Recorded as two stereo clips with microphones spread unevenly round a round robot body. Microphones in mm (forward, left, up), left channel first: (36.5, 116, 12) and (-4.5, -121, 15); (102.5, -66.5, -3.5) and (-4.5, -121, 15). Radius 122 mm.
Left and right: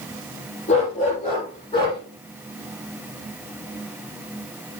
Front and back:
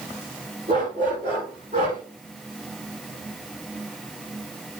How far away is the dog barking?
About 7 m.